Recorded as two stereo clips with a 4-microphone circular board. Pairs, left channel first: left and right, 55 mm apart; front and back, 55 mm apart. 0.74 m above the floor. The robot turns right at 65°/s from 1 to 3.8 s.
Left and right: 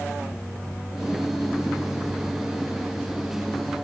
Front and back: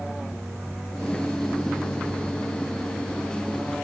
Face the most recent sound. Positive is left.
No sound to turn to.